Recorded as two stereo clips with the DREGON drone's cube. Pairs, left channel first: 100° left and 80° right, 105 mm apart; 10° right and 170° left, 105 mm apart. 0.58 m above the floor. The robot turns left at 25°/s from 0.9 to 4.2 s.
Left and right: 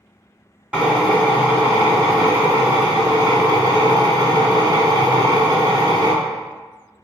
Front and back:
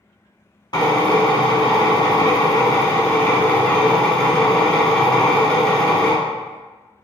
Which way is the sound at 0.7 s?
10° right.